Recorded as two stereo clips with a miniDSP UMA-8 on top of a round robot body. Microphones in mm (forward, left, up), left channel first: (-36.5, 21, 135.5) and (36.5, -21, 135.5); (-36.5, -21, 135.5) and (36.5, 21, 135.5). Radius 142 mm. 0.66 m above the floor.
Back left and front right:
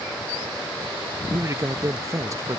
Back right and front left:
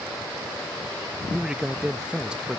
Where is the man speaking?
40° right.